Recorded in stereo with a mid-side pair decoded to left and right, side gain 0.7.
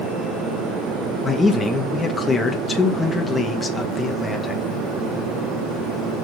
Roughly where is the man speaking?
Ahead.